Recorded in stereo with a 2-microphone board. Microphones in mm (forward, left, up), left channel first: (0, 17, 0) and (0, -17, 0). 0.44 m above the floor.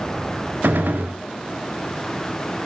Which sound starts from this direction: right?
A gunshot, at 0.6 s.